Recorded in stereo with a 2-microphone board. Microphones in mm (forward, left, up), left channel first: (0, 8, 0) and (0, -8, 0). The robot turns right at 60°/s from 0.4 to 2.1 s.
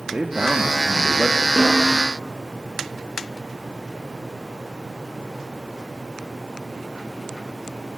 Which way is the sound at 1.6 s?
5° left (ahead or behind).